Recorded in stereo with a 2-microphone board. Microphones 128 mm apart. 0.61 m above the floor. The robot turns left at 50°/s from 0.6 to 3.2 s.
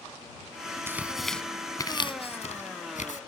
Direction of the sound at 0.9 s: 20° right (ahead or behind).